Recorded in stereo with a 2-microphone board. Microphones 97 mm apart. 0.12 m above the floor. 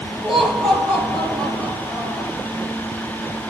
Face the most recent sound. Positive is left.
turn(degrees=15)  # may be behind; listen again after turning